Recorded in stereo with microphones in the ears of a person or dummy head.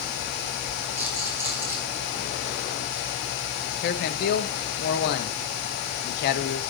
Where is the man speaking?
55° left (ahead or behind), 1.2 m.